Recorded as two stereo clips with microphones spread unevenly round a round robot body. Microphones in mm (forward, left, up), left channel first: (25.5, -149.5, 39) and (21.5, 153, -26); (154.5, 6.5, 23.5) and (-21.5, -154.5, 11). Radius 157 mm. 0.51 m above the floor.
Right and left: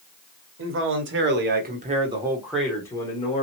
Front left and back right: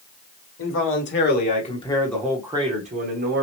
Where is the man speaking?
65° left, 2.0 m; by 3.4 s 165° right, 1.8 m.